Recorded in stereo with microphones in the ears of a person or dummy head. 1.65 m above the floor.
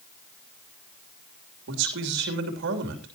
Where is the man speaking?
70° right (ahead or behind), 3 m.